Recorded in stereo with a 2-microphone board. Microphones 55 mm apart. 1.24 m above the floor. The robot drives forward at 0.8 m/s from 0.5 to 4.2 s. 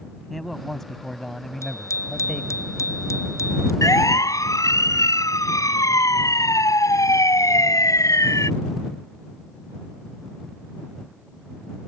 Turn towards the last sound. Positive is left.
turn(degrees=80)